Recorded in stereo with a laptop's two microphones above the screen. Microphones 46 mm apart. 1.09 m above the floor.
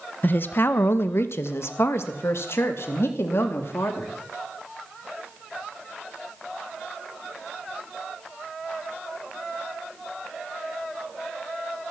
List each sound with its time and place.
0.2 s a woman speaking: 45° left (ahead or behind), 1.1 m; by 4.1 s 65° left (ahead or behind), 3 m